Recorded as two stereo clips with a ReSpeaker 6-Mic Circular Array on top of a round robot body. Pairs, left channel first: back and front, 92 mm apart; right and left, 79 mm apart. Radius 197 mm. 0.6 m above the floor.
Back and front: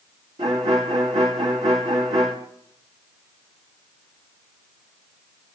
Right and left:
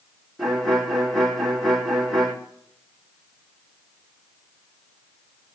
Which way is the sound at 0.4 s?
Straight ahead.